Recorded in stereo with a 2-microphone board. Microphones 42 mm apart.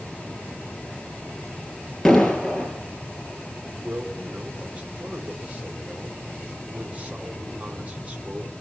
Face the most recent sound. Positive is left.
turn(degrees=-30)  # may be behind; listen again after turning